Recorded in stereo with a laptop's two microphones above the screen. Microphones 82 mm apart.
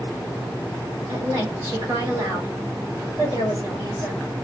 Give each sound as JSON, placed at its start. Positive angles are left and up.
{"t": 1.1, "sound": "a woman speaking", "side_deg": -65, "distance_m": 1.8}